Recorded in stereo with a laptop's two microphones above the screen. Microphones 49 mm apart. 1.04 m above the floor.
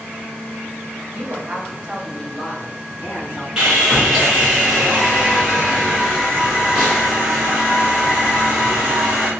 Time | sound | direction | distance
1.1 | a woman speaking | 55° right (ahead or behind) | 0.9 m
3.6 | sawing | 15° right (ahead or behind) | 0.8 m